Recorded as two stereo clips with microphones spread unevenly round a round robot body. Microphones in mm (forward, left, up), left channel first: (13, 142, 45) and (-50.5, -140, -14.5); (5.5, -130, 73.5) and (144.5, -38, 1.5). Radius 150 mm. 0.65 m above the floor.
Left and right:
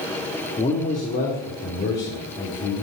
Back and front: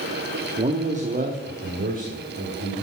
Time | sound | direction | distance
0.6 | a man speaking | straight ahead | 1.1 m